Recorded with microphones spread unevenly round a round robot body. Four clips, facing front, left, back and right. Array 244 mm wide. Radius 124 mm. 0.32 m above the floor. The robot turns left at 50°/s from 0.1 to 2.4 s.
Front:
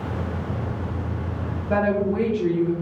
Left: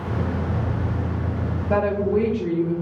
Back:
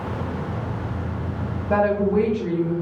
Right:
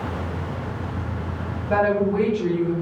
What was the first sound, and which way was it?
A woman speaking, 90° left.